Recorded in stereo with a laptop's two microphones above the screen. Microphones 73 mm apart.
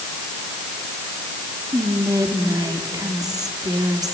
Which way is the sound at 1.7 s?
60° right (ahead or behind).